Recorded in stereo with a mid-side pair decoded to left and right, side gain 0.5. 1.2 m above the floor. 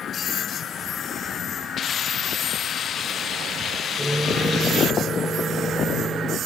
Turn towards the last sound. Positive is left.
turn(degrees=0)